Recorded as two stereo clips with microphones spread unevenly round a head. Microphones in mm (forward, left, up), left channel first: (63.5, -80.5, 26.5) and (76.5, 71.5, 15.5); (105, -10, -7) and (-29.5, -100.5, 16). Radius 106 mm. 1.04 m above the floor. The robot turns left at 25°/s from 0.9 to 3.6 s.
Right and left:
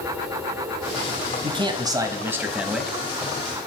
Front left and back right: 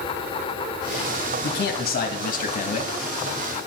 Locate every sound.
1.4 s a man speaking: 35° left, 1.2 m; by 3.0 s 5° right, 1.2 m